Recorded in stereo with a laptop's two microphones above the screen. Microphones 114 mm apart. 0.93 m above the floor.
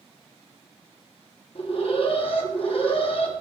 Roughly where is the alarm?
Left.